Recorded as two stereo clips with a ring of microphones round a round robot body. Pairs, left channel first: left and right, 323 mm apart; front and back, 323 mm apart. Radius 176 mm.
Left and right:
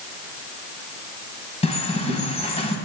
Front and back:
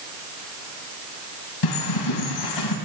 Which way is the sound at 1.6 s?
20° left.